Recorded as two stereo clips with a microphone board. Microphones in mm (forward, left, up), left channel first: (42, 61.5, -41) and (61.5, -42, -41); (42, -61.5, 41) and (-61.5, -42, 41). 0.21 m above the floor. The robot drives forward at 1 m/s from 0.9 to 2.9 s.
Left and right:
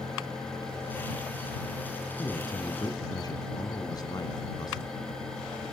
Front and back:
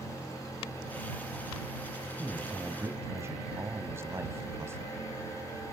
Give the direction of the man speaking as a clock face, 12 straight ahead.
9 o'clock.